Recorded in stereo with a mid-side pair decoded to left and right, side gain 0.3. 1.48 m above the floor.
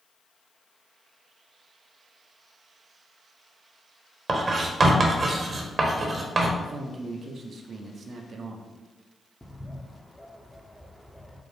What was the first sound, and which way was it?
Writing, 55° right.